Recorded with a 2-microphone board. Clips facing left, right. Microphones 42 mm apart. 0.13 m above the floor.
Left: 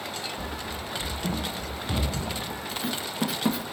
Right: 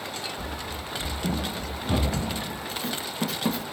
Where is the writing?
5° left (ahead or behind), 0.9 m.